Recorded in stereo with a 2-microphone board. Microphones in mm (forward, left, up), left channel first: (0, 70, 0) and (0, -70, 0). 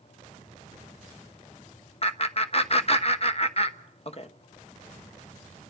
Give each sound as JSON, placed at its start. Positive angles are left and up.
{"t": 2.0, "sound": "laughter", "side_deg": 45, "distance_m": 1.0}